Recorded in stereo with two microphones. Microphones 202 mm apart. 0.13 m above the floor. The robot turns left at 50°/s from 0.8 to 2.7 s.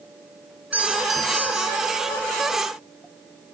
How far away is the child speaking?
No child speaking in this recording.